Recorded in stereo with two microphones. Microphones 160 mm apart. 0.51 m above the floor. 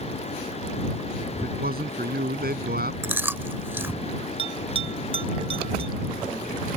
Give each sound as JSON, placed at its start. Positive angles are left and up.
{"t": 1.3, "sound": "a man speaking", "side_deg": -75}
{"t": 3.0, "sound": "chewing", "side_deg": -15}
{"t": 4.4, "sound": "a bell", "side_deg": -35}